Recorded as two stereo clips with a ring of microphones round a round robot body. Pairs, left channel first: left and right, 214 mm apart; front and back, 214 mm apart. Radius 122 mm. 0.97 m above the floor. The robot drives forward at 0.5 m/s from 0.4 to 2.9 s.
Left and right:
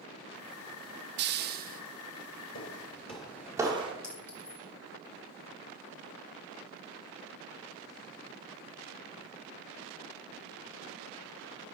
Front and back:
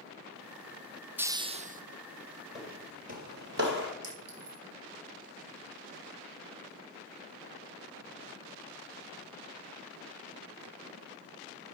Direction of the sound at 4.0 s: 155° left.